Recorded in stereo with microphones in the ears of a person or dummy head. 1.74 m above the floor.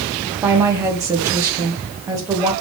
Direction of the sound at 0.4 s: 15° right (ahead or behind).